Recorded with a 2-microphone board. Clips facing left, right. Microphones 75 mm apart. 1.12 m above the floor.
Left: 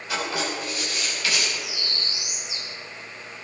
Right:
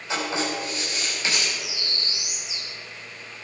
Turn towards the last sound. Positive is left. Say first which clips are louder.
# left 1 dB
turn(degrees=-5)  # may be behind; listen again after turning